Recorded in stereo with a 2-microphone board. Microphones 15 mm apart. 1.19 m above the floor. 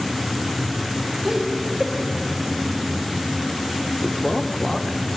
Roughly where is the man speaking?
Left.